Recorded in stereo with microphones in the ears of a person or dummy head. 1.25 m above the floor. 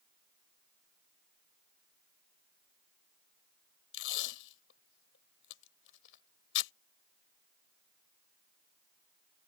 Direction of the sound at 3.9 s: 75° left (ahead or behind).